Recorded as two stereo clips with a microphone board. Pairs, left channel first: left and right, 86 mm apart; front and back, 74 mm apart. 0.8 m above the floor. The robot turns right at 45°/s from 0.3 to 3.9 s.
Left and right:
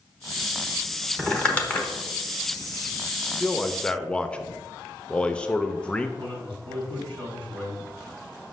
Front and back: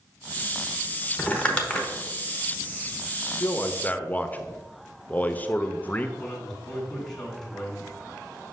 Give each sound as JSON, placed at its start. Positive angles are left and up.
{"t": 1.2, "sound": "crumpling", "azimuth_deg": 25, "distance_m": 1.0}
{"t": 3.4, "sound": "a man speaking", "azimuth_deg": 5, "distance_m": 0.5}
{"t": 6.2, "sound": "a man speaking", "azimuth_deg": -90, "distance_m": 3.0}